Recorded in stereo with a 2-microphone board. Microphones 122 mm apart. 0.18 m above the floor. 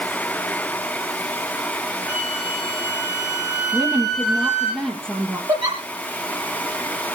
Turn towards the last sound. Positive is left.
turn(degrees=-40)  # may be behind; listen again after turning